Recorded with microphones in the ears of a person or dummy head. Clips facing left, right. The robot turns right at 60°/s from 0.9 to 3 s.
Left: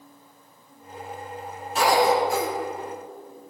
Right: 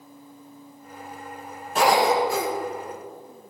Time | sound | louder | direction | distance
1.8 | a cough | even | 130° right | 1.6 m